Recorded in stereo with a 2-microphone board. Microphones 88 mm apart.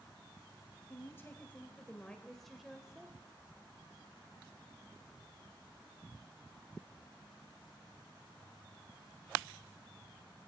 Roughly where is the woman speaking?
Left.